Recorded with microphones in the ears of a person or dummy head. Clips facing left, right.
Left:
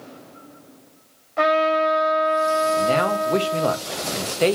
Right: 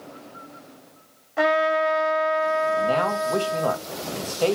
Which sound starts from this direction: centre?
A trumpet, at 1.4 s.